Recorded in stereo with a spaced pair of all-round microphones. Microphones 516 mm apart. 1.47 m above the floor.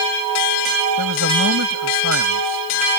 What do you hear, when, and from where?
1.0 s a man speaking: 30° right (ahead or behind)